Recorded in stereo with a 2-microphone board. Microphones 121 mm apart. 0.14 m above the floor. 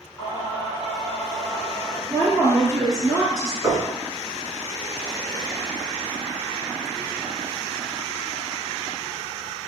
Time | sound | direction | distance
0.2 | singing | 30° left (ahead or behind) | 1.0 m
2.1 | a woman speaking | 25° left (ahead or behind) | 1.5 m
3.6 | knocking | 10° right (ahead or behind) | 1.4 m